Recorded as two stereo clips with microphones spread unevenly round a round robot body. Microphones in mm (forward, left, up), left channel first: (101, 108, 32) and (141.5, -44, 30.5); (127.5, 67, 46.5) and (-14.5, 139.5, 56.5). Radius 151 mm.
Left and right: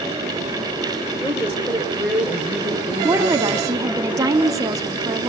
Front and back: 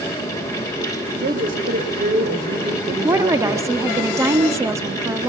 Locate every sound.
1.2 s a woman speaking: 160° right, 2.5 m
3.0 s a woman speaking: 140° right, 1.3 m